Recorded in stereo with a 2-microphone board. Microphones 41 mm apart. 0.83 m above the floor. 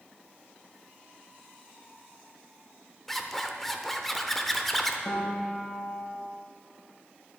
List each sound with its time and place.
3.1 s a zipper: 5° left (ahead or behind), 0.7 m
5.0 s a piano: 50° left (ahead or behind), 3.5 m